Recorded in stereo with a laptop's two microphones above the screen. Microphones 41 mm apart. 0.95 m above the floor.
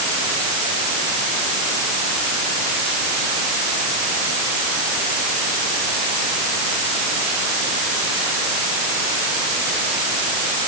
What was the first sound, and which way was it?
Only background noise.